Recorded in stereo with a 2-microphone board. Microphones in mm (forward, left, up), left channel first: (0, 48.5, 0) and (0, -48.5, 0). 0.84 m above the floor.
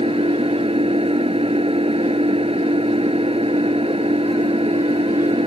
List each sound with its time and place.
0.0 s an engine running: 85° right